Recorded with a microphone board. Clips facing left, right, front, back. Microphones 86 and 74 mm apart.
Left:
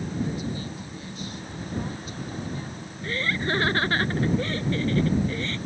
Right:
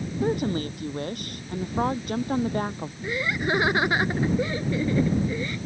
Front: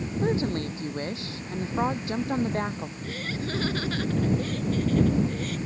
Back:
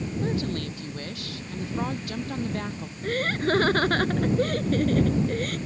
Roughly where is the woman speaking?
Ahead right.